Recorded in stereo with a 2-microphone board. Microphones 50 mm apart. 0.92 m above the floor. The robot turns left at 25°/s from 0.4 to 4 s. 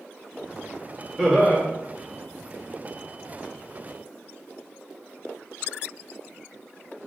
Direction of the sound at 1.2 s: Centre (ahead or behind).